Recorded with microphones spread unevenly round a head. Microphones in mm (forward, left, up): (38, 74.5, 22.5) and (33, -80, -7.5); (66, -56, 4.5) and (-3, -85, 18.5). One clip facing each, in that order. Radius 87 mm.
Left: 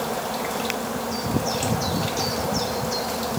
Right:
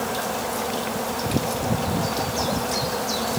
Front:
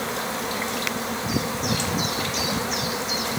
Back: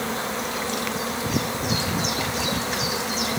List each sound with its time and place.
Only background noise.